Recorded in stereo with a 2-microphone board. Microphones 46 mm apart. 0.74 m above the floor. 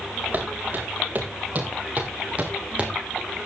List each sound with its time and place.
0.3 s footsteps: 40° right (ahead or behind), 5.5 m; by 3.5 s 20° right (ahead or behind), 2 m